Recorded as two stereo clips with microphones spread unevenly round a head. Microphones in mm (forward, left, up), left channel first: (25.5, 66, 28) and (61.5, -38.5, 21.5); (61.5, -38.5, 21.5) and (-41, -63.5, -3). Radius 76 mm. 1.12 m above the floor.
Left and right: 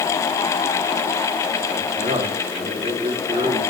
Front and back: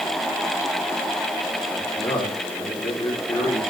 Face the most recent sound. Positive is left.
turn(degrees=-45)